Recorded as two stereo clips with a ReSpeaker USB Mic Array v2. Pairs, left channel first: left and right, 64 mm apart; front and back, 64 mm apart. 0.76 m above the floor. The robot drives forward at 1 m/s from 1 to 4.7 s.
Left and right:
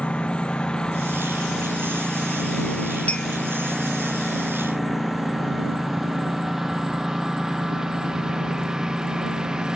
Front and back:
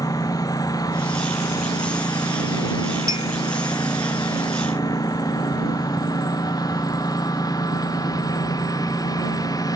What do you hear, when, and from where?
0.0 s a lawn mower: 15° left; by 9.8 s 10° right
3.1 s a clink: 160° left